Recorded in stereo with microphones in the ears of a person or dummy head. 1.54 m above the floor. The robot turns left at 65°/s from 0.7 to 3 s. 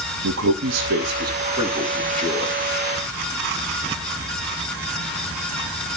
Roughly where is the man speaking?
Right.